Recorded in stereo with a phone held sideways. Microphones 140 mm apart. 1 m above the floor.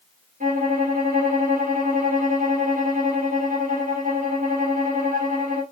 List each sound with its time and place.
0.4 s a violin: 75° right (ahead or behind), 2.5 m